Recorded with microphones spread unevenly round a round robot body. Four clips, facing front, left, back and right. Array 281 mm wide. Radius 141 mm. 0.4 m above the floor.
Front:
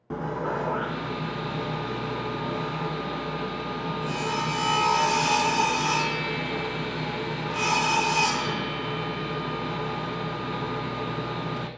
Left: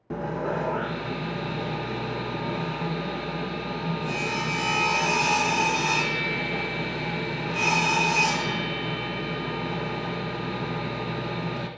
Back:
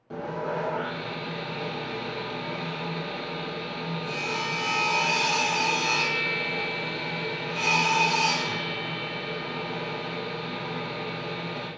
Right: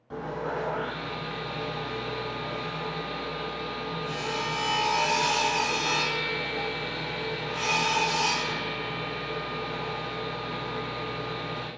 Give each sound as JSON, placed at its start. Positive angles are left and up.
{"t": 0.1, "sound": "sawing", "azimuth_deg": 50, "distance_m": 1.1}